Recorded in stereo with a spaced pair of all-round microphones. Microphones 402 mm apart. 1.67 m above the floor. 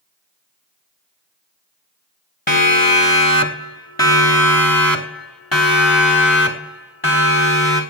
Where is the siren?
45° left (ahead or behind), 3.5 m; by 7.8 s 30° left (ahead or behind), 6.5 m.